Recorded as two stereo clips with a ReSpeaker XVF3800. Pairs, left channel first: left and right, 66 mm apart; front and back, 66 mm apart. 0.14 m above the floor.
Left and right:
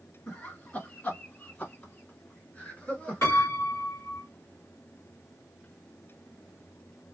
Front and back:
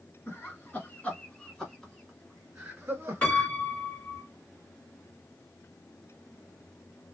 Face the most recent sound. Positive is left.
turn(degrees=60)